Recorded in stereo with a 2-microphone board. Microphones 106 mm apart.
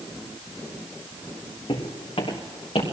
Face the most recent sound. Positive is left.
turn(degrees=60)  # may be behind; listen again after turning